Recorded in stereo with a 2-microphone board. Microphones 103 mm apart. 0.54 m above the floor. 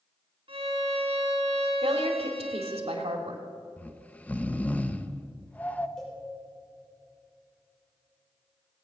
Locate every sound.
0.5 s a violin: 60° right (ahead or behind), 2 m
1.8 s a woman speaking: 65° right (ahead or behind), 2 m
3.8 s snoring: 15° left (ahead or behind), 0.6 m
6.0 s a cowbell: 5° left (ahead or behind), 4.5 m